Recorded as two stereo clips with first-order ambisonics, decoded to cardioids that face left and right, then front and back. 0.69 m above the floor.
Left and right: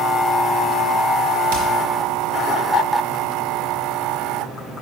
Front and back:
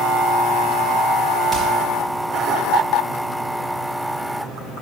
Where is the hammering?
85° right, 3.5 m.